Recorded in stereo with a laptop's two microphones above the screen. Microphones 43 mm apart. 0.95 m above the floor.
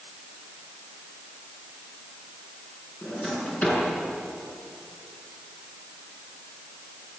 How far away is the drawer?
About 7.5 m.